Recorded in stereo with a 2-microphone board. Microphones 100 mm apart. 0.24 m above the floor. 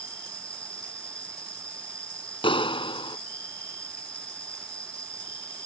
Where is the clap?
60° left (ahead or behind).